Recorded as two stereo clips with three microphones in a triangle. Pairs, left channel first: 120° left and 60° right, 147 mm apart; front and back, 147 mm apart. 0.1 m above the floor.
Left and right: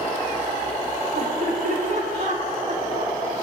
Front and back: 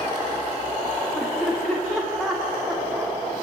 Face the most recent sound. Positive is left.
turn(degrees=-95)